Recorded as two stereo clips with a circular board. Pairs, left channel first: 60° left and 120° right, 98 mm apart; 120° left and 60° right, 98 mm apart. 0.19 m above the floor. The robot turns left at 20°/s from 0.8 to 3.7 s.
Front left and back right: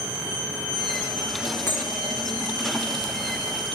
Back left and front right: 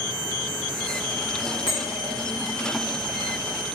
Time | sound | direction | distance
1.7 | a bell | 125° left | 5 m